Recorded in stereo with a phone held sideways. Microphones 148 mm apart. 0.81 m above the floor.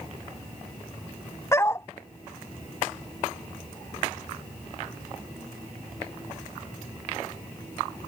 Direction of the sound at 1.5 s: 20° left (ahead or behind).